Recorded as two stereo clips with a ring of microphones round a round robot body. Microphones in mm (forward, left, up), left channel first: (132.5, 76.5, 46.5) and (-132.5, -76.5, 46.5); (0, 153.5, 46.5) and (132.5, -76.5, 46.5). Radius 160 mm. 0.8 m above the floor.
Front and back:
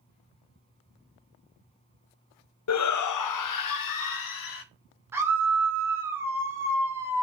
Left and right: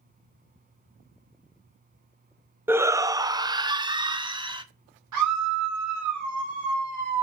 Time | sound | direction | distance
2.7 | a shout | 20° left | 0.6 m
5.1 | a scream | 65° right | 3.5 m